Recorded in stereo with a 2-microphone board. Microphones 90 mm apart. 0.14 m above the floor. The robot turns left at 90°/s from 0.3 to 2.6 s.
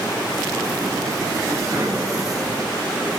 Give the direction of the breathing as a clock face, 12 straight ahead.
4 o'clock.